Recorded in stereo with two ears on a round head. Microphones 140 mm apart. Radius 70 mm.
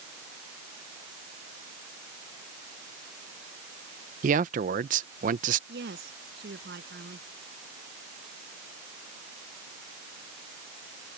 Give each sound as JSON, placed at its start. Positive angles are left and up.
{"t": 4.2, "sound": "a man speaking", "side_deg": -50}
{"t": 5.7, "sound": "a woman speaking", "side_deg": -70}